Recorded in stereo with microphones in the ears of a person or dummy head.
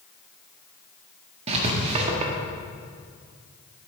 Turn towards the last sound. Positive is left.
turn(degrees=-40)  # may be behind; listen again after turning